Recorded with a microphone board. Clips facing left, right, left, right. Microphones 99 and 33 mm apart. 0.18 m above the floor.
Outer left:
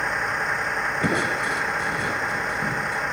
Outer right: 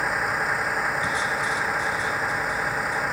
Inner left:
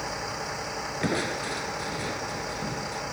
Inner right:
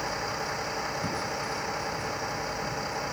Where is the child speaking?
No child speaking in this recording.